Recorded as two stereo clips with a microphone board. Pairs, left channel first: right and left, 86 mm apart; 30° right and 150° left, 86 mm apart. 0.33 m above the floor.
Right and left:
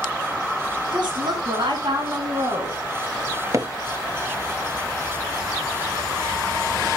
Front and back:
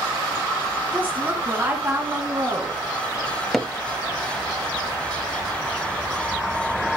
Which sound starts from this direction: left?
A woman speaking, at 0.9 s.